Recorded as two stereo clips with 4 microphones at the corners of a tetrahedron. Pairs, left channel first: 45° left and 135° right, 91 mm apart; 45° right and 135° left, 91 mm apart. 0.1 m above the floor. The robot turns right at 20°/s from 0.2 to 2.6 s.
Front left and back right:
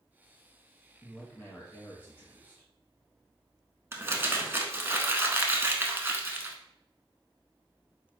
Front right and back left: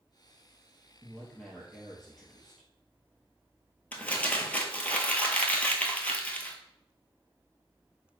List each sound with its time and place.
1.0 s a man speaking: 20° left, 1.7 m; by 2.7 s 50° left, 1.7 m
3.9 s crumpling: 100° right, 0.7 m